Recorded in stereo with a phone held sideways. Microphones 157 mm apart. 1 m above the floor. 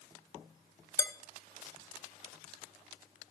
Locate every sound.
1.0 s dishes clattering: 20° left (ahead or behind), 0.6 m